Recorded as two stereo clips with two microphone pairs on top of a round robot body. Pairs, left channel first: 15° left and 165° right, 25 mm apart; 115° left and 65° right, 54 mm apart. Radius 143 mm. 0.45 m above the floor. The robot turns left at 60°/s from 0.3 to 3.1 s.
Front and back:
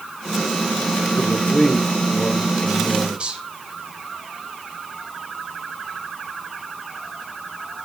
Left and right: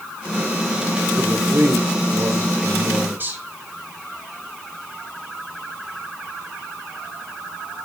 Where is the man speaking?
Straight ahead, 2.5 m; by 3.4 s 115° right, 2.5 m.